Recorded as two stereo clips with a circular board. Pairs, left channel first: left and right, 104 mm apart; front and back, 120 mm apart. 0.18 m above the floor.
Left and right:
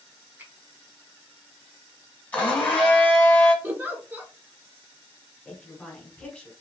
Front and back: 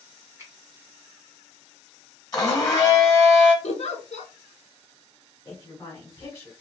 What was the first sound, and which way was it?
A finger snap, 145° right.